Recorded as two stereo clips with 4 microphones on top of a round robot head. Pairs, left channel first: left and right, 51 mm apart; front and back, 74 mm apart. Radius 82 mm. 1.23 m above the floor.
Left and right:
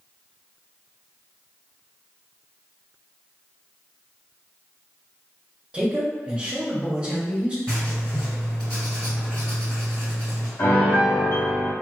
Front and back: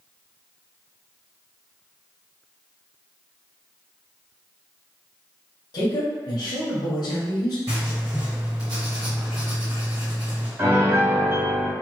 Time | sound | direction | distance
5.7 | a man speaking | 25° right | 0.9 m
7.7 | writing | 165° left | 1.9 m
10.6 | a piano | 130° left | 1.0 m